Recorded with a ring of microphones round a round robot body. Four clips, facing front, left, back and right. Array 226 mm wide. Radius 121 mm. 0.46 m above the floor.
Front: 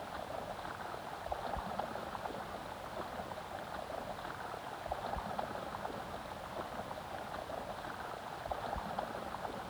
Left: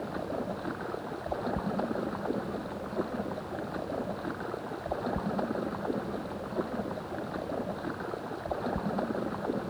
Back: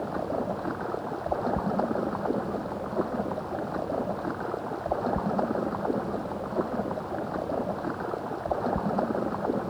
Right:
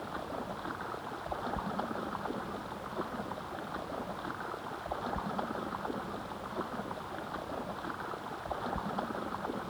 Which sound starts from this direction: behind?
Running water, at 0.0 s.